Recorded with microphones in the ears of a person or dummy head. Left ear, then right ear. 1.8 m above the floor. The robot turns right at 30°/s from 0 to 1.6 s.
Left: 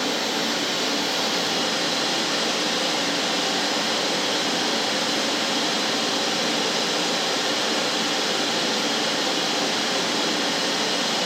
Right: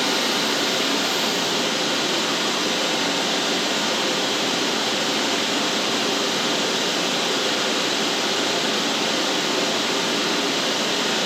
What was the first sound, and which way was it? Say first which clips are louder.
Running water: right 3 dB; 65° right.